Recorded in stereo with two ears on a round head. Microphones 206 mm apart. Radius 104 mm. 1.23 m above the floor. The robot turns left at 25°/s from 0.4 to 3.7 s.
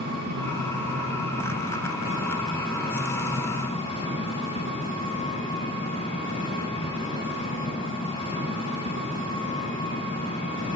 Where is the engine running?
125° right, 9 m; by 10.8 s 155° left, 9 m.